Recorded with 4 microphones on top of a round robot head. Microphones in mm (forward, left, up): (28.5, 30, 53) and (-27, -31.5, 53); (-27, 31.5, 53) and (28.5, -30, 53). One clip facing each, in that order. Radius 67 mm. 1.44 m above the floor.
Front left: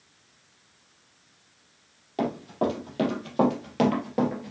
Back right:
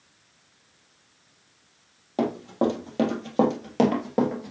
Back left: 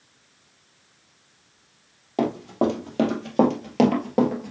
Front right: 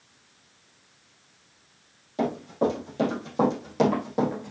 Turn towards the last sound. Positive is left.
turn(degrees=170)